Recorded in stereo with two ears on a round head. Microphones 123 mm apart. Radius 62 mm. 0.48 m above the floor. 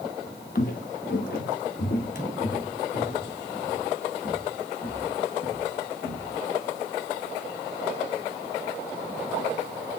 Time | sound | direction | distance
0.6 | footsteps | 70° left (ahead or behind) | 1.1 m